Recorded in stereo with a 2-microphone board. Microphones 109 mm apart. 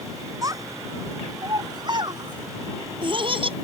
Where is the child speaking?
30° right (ahead or behind); by 3.5 s 50° right (ahead or behind).